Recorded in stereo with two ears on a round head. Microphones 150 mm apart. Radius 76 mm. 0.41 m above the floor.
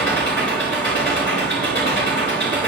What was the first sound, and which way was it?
An engine running, 75° left (ahead or behind).